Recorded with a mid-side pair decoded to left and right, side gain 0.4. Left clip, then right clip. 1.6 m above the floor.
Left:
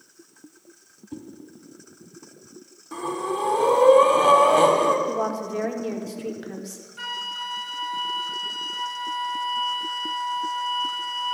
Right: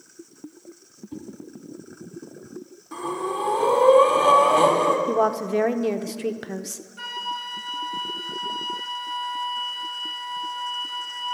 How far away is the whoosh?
About 2 m.